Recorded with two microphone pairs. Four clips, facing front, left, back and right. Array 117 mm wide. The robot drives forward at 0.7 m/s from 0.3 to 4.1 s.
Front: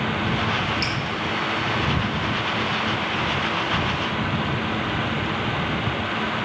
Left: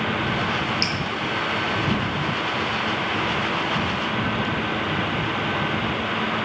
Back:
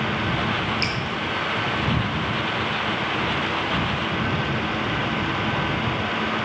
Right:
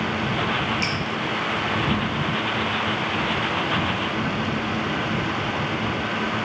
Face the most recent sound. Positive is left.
turn(degrees=-170)